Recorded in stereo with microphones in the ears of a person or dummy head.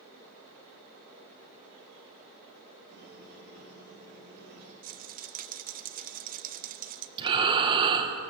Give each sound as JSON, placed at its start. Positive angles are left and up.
{"t": 2.9, "sound": "a squeak", "side_deg": -45, "distance_m": 4.5}
{"t": 4.8, "sound": "a rattle", "side_deg": -35, "distance_m": 0.7}
{"t": 7.2, "sound": "breathing", "side_deg": -25, "distance_m": 1.7}